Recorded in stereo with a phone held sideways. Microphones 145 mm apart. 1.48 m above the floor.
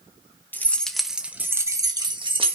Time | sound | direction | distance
0.5 | keys jangling | 15° left (ahead or behind) | 1.2 m